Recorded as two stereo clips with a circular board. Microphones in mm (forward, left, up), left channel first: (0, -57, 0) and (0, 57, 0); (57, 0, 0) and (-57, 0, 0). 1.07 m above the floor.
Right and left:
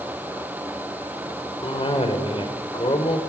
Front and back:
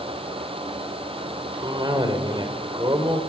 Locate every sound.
1.6 s a cough: 130° right, 4.5 m